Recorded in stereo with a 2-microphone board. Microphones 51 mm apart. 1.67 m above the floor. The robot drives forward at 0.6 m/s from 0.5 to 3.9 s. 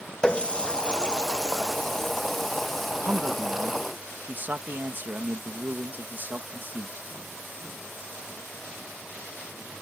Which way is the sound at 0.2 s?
25° left (ahead or behind).